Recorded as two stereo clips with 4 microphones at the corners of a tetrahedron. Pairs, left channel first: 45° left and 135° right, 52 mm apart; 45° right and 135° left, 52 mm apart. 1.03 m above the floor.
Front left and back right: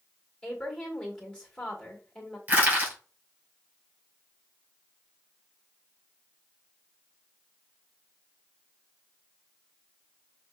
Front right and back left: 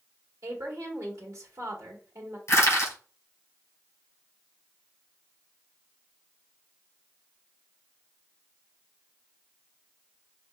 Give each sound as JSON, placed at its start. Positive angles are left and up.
{"t": 0.4, "sound": "a woman speaking", "azimuth_deg": 125, "distance_m": 1.8}
{"t": 2.5, "sound": "crushing", "azimuth_deg": -75, "distance_m": 3.0}